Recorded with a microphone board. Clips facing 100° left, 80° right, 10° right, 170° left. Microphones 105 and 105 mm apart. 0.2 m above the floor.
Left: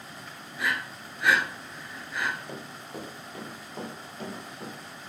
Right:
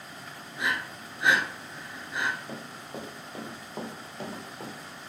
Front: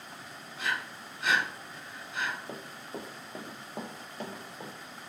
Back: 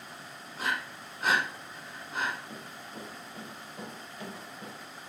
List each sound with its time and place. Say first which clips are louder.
0.6 s breathing: even, back 1 dB; 145° right, 0.9 m
2.5 s running footsteps: even, front 3 dB; 5° left, 1.4 m; by 4.7 s 35° right, 3 m